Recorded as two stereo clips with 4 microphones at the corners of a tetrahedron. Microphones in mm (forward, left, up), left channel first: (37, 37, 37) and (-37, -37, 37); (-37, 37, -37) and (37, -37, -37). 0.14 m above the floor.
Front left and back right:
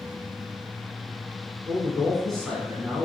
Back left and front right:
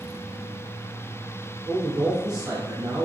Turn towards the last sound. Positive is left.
turn(degrees=-35)